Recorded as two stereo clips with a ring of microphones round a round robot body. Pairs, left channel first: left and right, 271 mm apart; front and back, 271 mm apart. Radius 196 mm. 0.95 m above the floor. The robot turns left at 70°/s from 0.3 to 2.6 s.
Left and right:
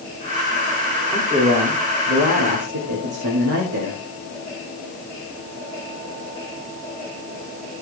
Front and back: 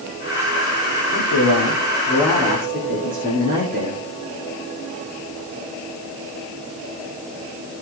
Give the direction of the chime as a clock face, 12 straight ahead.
No chime in this recording.